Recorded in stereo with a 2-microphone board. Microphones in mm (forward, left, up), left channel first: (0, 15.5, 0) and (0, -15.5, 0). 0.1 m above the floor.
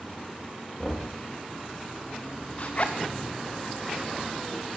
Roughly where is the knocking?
Left.